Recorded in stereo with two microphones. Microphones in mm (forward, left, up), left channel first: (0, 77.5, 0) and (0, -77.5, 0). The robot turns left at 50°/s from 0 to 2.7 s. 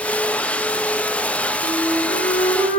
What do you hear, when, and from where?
1.6 s a flute: 10° right, 3.5 m; by 2.8 s 65° right, 3.5 m